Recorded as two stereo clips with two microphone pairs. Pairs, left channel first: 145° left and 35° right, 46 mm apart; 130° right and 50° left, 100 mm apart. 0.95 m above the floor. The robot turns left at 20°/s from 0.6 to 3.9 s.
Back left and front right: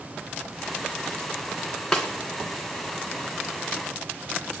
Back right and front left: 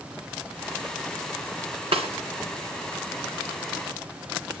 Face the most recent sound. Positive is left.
turn(degrees=25)